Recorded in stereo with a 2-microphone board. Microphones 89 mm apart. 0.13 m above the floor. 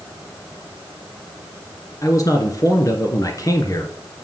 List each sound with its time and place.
2.0 s a man speaking: 40° left (ahead or behind), 2.0 m